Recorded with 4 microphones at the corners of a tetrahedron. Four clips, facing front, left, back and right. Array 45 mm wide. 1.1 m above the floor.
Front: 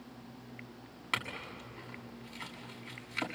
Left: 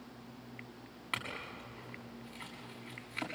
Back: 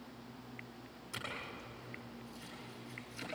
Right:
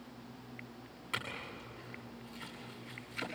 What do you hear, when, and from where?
1.1 s a clink: 20° left, 6.5 m